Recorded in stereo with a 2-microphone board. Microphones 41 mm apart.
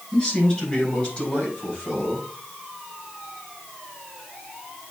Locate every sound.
0.1 s a man speaking: 30° left (ahead or behind), 3.5 m; by 2.3 s 45° left (ahead or behind), 5 m